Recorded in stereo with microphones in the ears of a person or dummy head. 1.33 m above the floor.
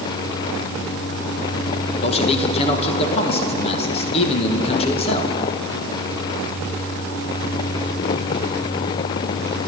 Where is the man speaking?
35° left (ahead or behind), 1.6 m.